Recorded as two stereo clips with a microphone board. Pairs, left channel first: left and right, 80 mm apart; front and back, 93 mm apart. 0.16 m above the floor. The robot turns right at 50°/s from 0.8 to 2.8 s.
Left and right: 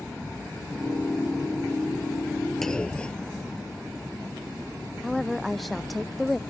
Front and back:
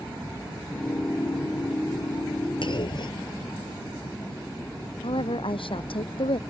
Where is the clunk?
5° left; by 4.0 s 15° left.